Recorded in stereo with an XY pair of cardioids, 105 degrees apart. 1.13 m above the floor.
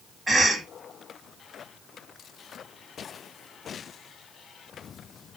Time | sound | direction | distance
0.3 | a cough | 25° right | 1.4 m